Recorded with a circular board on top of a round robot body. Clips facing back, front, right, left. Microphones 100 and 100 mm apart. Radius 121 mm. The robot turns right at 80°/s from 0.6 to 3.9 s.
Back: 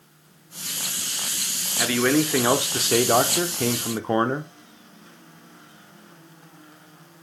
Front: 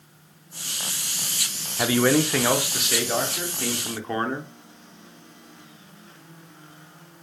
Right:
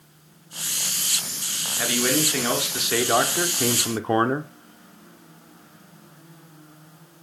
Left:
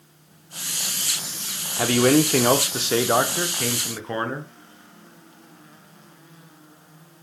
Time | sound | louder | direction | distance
1.8 | a man speaking | front 1 dB, left 7 dB | 55° left | 0.8 m